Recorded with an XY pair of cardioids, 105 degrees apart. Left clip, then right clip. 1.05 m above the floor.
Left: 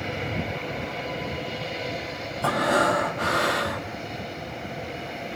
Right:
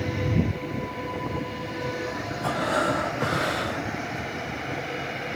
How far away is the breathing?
About 1.4 m.